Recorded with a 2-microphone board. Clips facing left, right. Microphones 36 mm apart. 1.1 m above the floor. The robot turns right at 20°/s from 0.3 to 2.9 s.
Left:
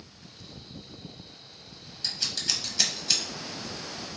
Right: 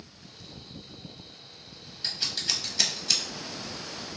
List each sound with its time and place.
2.0 s scissors: 20° right (ahead or behind), 0.7 m; by 3.2 s centre (ahead or behind), 0.7 m